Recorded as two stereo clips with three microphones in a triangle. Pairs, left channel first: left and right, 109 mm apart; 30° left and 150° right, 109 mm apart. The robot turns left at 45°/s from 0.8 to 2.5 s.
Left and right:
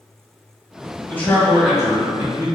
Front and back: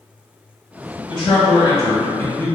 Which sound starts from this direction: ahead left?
A man speaking, at 1.1 s.